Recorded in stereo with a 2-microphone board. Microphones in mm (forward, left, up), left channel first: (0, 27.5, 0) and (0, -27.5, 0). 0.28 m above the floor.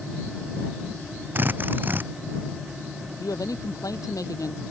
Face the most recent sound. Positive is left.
turn(degrees=80)